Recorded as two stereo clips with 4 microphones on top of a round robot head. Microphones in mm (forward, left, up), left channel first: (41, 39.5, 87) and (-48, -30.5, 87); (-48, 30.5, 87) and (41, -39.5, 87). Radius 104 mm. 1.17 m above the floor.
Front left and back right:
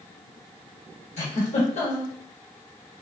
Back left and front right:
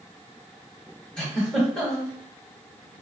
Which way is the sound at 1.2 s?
55° left.